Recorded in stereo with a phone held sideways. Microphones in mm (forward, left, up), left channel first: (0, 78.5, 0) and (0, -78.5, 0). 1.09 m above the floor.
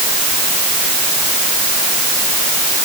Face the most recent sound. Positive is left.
No sound to turn to.